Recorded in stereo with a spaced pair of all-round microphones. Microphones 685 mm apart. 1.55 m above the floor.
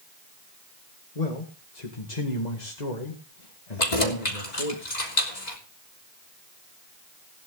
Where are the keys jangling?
80° left, 3.5 m.